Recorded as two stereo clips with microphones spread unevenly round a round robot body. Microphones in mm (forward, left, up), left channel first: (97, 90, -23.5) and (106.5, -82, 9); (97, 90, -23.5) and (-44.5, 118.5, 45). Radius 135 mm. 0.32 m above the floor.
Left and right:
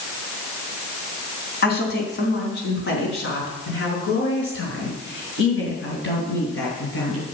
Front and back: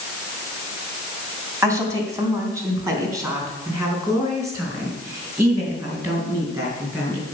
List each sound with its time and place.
1.6 s a woman speaking: 85° left, 2.5 m; by 7.3 s 90° left, 6 m